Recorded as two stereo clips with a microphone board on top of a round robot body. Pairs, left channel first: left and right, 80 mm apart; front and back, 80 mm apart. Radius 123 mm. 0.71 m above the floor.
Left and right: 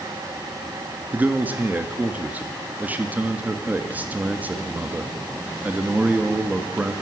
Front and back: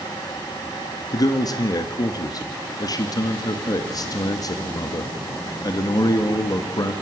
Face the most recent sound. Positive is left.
turn(degrees=-25)